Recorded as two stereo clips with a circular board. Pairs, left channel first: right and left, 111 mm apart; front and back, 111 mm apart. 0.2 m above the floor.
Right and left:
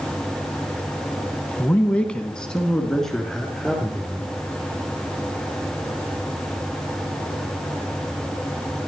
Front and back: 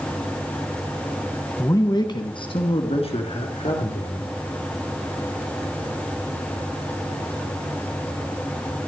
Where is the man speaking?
30° right, 1.8 m; by 4.3 s straight ahead, 5 m.